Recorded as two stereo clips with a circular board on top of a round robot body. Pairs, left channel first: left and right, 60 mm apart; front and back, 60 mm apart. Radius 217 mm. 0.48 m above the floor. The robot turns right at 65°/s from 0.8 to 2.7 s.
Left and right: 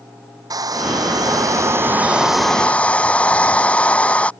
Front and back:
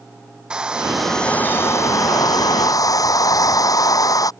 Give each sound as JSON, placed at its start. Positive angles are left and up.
{"t": 0.5, "sound": "a hair dryer", "azimuth_deg": -105}